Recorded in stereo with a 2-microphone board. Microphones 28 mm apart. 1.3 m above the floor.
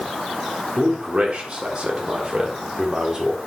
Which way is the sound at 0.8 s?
50° right (ahead or behind).